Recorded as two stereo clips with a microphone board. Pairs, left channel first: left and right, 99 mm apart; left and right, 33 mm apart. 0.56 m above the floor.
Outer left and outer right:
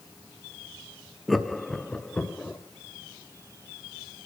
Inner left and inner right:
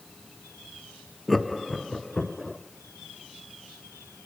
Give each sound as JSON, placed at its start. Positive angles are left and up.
{"t": 1.3, "sound": "laughter", "side_deg": 0, "distance_m": 0.6}